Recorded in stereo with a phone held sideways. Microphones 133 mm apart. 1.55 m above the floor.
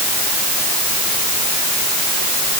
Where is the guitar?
No guitar in this recording.